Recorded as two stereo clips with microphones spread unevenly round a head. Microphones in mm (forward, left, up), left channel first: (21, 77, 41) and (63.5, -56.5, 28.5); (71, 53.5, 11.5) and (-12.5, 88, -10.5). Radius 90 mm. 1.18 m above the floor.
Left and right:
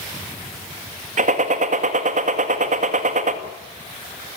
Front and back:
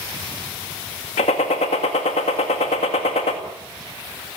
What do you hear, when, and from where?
1.2 s a gunshot: 45° right, 2 m